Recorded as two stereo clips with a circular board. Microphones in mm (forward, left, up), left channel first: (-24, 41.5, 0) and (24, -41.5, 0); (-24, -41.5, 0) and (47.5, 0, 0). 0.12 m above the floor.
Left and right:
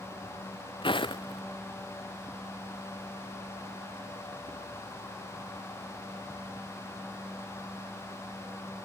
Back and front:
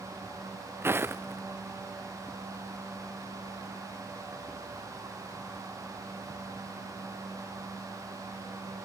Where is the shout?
I don't hear a shout.